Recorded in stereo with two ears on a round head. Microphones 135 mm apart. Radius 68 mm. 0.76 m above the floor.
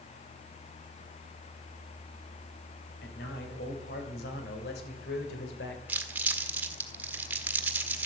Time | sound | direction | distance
3.0 | a man speaking | 75° left (ahead or behind) | 4.5 m
5.9 | crumpling | 10° right (ahead or behind) | 1.5 m